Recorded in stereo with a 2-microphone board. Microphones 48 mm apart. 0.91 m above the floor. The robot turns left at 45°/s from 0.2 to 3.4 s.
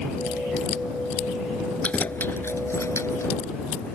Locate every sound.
1.8 s keys jangling: 25° left (ahead or behind); by 3.3 s 85° left